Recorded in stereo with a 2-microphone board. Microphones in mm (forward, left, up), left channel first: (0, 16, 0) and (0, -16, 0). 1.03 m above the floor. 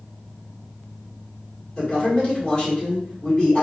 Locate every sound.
1.8 s a man speaking: 30° left (ahead or behind), 1.6 m